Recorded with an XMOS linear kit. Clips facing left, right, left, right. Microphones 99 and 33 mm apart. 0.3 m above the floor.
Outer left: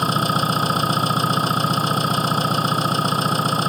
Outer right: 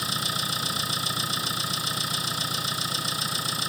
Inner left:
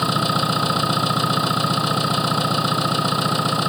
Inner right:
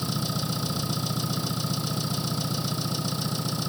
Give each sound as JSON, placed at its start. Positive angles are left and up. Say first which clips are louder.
{"t": 0.0, "sound": "an engine running", "louder": "outer left 12 dB, inner left 11 dB", "side_deg": 55}